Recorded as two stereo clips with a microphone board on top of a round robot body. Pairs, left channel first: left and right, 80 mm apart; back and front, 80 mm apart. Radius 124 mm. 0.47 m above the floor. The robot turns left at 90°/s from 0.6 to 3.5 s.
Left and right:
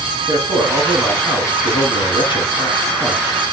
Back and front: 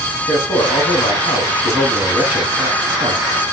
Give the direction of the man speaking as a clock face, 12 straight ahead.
5 o'clock.